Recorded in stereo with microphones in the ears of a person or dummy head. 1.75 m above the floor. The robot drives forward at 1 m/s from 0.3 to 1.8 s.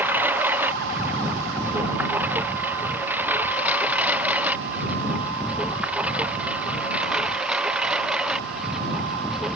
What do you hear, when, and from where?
0.0 s a lawn mower: 5° right (ahead or behind); by 9.6 s centre (ahead or behind)